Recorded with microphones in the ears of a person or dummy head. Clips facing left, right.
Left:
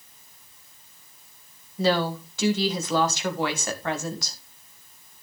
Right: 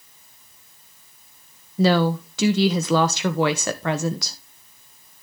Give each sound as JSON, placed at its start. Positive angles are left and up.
{"t": 1.8, "sound": "a woman speaking", "side_deg": -60, "distance_m": 1.3}